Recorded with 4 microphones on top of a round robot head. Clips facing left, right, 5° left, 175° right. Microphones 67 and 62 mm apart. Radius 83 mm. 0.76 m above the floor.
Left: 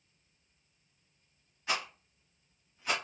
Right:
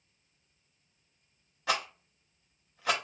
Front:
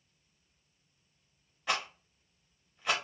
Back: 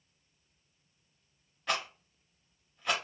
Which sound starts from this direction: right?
A rattle, at 1.7 s.